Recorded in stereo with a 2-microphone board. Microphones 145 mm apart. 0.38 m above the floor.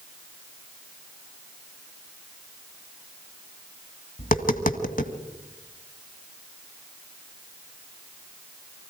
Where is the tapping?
75° left (ahead or behind), 1.6 m.